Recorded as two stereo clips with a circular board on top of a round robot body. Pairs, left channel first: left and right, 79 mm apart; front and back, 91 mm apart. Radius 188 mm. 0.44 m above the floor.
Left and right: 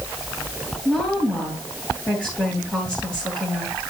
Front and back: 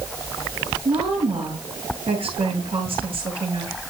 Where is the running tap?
I don't hear a running tap.